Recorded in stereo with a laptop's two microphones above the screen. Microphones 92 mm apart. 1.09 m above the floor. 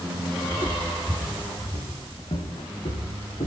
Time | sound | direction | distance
0.5 | footsteps | 70° left (ahead or behind) | 4 m